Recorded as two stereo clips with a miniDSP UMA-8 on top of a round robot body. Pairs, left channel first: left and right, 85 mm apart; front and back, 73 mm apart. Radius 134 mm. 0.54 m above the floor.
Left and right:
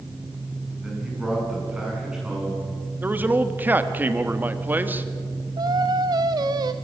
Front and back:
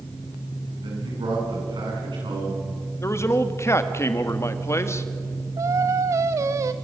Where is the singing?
135° right, 0.6 m.